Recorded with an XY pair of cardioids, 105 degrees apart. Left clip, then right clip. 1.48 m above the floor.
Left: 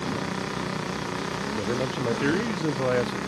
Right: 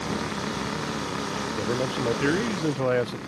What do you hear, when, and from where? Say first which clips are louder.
1.5 s a man speaking: right 1 dB; 5° right